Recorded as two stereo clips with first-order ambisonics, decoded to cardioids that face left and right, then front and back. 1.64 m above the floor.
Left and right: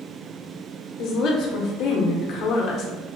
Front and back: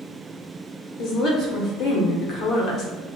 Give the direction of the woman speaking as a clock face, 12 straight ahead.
10 o'clock.